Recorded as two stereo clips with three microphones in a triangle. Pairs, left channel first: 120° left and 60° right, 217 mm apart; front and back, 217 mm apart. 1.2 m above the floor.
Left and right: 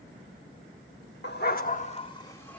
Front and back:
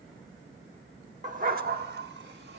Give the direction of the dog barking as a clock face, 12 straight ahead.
8 o'clock.